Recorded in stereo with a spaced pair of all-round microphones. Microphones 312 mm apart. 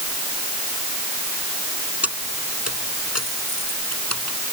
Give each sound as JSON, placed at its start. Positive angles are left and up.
{"t": 2.0, "sound": "keys jangling", "side_deg": 50}